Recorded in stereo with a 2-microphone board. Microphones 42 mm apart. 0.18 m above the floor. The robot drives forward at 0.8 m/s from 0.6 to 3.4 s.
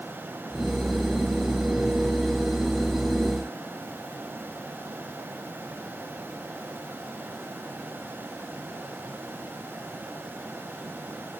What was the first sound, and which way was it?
Only background noise.